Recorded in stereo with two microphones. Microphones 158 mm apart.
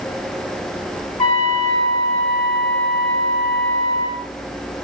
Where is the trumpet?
30° left (ahead or behind), 1.6 m.